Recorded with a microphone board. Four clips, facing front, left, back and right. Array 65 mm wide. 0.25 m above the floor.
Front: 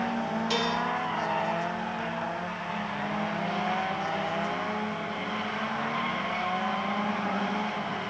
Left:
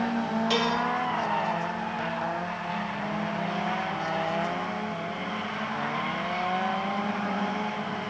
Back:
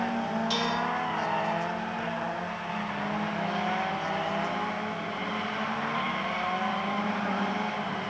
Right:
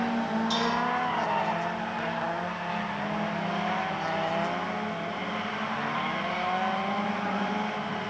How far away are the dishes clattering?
About 4 m.